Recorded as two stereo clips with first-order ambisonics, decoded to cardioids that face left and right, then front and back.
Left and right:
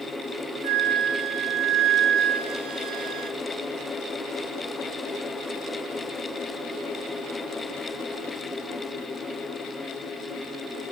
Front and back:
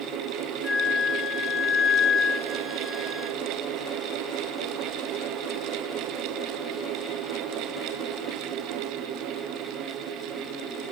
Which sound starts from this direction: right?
A flute, at 0.6 s.